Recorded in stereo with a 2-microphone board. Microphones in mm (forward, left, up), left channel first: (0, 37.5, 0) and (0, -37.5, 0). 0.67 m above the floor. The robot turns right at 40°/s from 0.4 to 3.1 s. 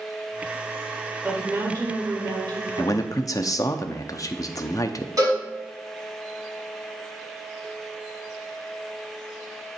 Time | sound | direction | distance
1.2 | a woman speaking | 150° right | 1.8 m
2.8 | a man speaking | 45° left (ahead or behind) | 0.6 m
5.2 | a cowbell | 50° right (ahead or behind) | 4.5 m